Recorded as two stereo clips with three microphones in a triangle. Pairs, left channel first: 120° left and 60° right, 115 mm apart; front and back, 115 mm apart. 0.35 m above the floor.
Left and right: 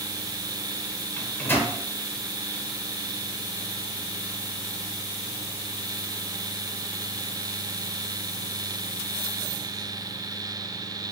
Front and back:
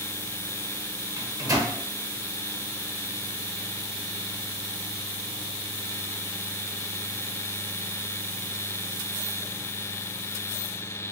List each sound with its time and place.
1.2 s a microwave: 175° left, 0.7 m